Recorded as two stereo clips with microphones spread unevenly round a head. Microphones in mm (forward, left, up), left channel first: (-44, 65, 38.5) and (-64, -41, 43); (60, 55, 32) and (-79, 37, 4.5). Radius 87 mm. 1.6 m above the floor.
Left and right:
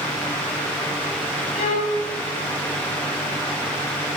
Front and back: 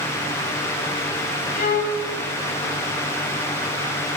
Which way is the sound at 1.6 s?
30° left.